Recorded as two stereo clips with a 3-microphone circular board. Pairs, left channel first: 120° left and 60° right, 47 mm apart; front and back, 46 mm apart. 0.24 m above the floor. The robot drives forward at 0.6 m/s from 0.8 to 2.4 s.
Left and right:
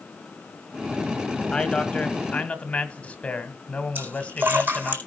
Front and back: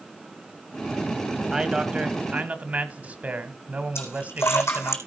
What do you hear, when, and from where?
1.5 s a man speaking: 140° left, 1.4 m; by 5.0 s 160° left, 1.6 m
4.0 s a splash: 15° right, 4 m